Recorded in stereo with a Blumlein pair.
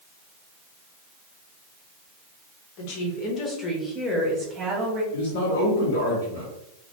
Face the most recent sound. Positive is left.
turn(degrees=55)